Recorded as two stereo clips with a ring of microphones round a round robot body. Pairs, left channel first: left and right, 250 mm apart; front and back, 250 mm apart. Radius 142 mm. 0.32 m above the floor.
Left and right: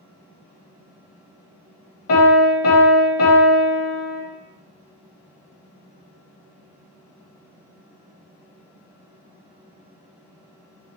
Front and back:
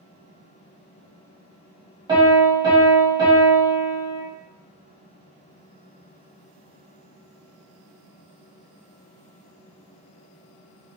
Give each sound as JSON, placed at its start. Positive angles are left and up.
{"t": 2.1, "sound": "a piano", "azimuth_deg": 110, "distance_m": 1.1}